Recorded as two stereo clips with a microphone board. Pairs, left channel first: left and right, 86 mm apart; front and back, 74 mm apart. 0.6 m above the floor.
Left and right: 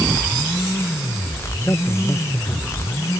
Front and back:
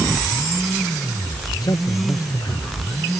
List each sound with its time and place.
1.6 s a man speaking: 30° left